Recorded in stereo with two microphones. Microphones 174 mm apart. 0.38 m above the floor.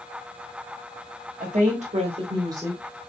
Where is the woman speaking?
50° right (ahead or behind), 1.6 m; by 3.0 s 5° right (ahead or behind), 1.2 m.